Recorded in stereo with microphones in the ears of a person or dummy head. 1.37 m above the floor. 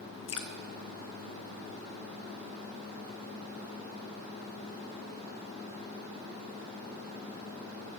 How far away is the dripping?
About 0.8 m.